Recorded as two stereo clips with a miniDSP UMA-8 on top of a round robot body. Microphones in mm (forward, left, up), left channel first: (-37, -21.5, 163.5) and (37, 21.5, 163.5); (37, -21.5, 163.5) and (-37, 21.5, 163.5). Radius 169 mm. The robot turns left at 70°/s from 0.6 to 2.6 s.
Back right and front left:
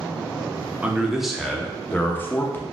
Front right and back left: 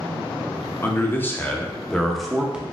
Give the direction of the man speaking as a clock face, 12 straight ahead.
1 o'clock.